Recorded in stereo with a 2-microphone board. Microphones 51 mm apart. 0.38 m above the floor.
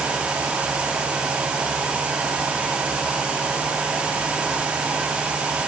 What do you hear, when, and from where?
Only background noise.